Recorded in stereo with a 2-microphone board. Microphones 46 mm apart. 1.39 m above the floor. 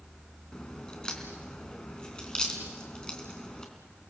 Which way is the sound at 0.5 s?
15° left (ahead or behind).